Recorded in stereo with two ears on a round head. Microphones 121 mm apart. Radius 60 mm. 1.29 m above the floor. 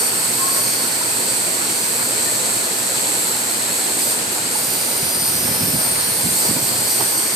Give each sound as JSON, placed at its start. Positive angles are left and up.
{"t": 0.0, "sound": "an insect", "side_deg": 0, "distance_m": 4.5}